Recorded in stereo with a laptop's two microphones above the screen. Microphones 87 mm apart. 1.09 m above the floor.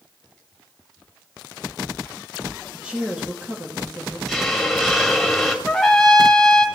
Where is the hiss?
5° left (ahead or behind), 2.5 m.